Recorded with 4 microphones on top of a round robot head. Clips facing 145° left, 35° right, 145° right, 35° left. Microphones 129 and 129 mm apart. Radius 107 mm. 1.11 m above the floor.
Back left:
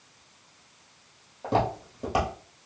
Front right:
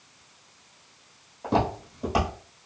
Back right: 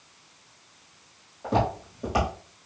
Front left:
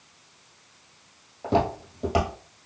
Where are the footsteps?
75° left, 1.3 m.